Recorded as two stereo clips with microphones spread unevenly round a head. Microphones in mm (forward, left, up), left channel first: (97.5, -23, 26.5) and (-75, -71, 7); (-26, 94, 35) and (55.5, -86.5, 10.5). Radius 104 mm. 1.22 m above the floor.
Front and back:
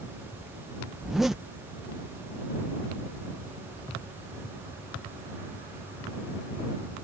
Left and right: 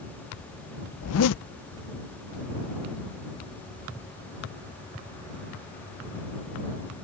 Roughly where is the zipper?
Left.